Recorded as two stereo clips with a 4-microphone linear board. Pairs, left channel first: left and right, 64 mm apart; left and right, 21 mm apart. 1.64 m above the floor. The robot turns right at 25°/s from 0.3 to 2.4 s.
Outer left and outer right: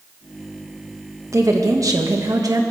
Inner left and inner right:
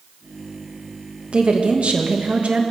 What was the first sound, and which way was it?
A woman speaking, 55° right (ahead or behind).